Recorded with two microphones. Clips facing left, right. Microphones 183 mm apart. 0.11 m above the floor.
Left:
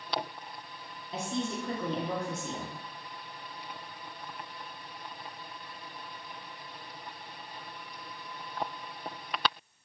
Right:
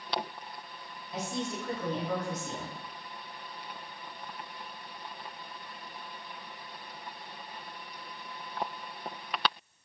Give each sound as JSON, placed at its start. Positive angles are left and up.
{"t": 1.1, "sound": "a woman speaking", "side_deg": 25, "distance_m": 1.6}